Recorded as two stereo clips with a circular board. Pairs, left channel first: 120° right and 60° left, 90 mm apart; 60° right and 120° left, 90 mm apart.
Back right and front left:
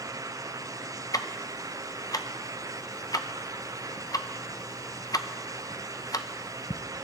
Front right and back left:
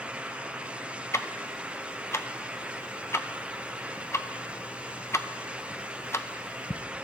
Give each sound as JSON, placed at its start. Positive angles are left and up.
{"t": 1.1, "sound": "ticking", "azimuth_deg": -105, "distance_m": 0.6}